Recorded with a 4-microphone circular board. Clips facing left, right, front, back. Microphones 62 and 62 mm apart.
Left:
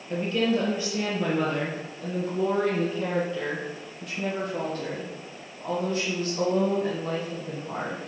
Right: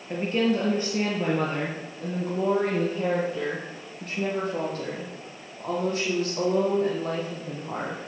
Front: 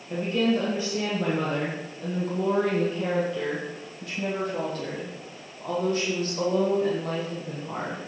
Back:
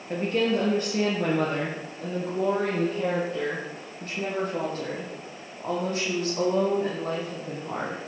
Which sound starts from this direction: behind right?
A woman speaking, at 0.1 s.